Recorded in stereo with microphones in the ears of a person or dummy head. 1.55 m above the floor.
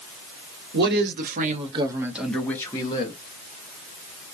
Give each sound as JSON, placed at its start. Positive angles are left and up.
{"t": 0.7, "sound": "a man speaking", "side_deg": -65, "distance_m": 1.0}